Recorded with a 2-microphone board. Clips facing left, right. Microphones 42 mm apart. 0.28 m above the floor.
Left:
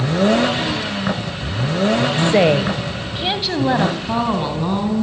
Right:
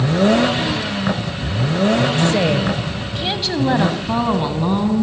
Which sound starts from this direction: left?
A woman speaking, at 2.2 s.